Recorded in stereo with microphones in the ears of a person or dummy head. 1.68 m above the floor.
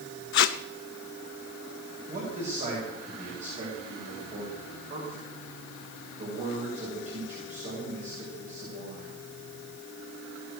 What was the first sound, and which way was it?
Tape being pulled, 65° left (ahead or behind).